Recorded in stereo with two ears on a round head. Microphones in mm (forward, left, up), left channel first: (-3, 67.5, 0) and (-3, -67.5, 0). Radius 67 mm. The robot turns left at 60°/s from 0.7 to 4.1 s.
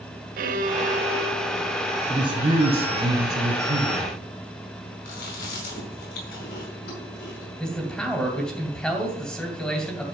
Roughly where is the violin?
Behind right.